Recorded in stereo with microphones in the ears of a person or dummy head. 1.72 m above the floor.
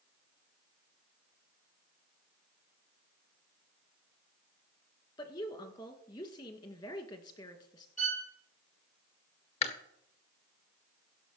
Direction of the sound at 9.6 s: 35° left (ahead or behind).